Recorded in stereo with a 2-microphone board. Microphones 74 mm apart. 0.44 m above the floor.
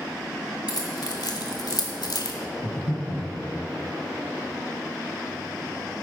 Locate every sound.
0.7 s keys jangling: 70° left (ahead or behind), 2 m; by 2.4 s 65° left (ahead or behind), 1.1 m
2.6 s breathing: 60° left (ahead or behind), 3 m